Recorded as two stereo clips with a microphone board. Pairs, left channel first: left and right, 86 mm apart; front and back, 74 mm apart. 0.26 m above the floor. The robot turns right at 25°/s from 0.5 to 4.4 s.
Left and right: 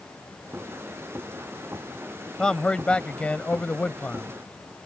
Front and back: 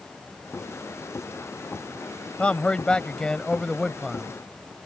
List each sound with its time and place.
2.4 s a man speaking: 35° left; by 4.3 s 80° left